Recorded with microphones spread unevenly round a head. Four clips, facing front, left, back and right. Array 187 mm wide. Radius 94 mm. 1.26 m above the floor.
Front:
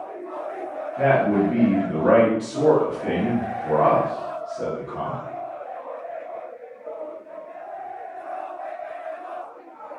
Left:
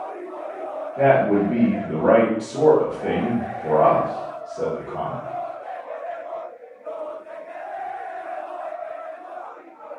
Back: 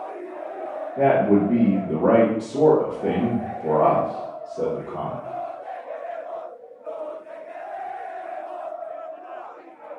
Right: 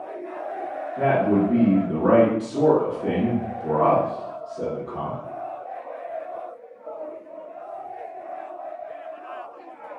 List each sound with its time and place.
1.0 s a man speaking: 160° left, 1.5 m